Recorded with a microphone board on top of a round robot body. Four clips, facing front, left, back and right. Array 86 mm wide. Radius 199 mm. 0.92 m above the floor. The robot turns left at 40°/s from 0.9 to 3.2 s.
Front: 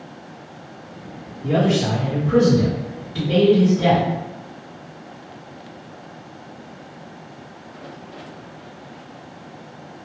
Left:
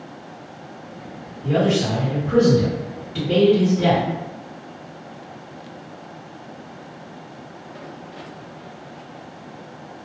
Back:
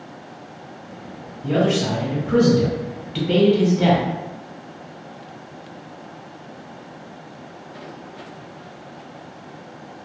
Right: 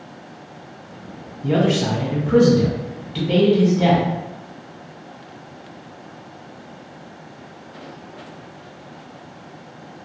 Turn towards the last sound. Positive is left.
turn(degrees=-155)